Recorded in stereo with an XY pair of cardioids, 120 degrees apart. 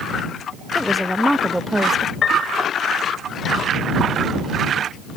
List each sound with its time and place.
0.8 s a woman speaking: 5° left; by 2.1 s 20° right
2.2 s a piano: 45° left